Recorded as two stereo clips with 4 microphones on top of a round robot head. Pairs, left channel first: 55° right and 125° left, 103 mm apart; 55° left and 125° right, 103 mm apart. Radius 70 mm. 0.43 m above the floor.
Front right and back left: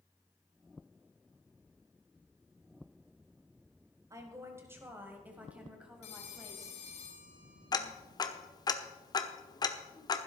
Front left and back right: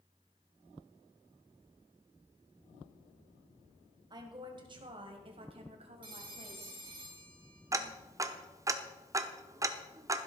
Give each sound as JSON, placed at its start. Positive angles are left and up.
{"t": 4.1, "sound": "a woman speaking", "azimuth_deg": -175, "distance_m": 2.5}
{"t": 6.0, "sound": "a phone ringing", "azimuth_deg": -80, "distance_m": 3.5}
{"t": 7.7, "sound": "ticking", "azimuth_deg": -80, "distance_m": 1.1}